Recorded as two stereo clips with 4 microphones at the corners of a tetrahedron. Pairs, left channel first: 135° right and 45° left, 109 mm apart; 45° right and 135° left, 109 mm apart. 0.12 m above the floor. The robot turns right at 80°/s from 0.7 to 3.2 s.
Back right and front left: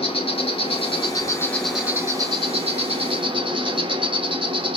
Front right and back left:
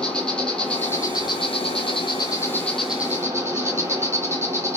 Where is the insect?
125° right, 0.9 m; by 4.8 s 75° left, 0.9 m.